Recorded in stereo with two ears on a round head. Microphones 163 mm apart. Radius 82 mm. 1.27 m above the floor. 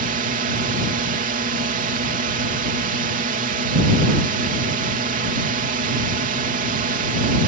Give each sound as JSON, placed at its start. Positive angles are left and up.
{"t": 0.0, "sound": "a drone", "side_deg": -50}